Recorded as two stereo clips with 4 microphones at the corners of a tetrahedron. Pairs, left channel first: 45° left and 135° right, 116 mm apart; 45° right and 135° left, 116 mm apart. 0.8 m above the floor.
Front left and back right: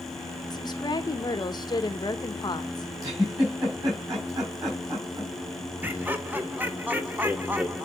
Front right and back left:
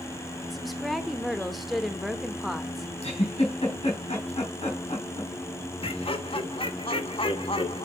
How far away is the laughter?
About 0.9 m.